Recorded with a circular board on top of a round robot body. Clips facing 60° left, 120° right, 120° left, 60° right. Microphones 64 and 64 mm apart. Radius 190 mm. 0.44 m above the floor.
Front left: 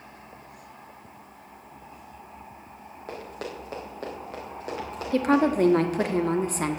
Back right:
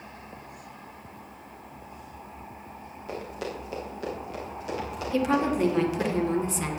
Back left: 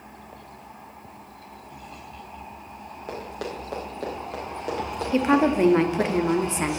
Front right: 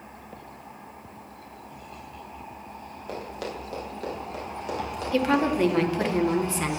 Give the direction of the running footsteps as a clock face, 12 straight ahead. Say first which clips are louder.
Back right 2 dB, back left 1 dB; 9 o'clock.